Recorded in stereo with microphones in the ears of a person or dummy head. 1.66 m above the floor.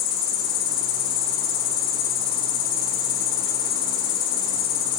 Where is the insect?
50° left (ahead or behind), 1.8 m.